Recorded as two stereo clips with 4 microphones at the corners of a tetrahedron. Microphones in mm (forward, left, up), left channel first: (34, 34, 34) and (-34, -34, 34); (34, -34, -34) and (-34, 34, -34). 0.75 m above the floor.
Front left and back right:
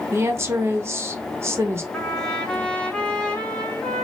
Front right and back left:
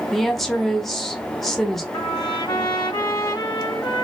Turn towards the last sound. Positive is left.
turn(degrees=-30)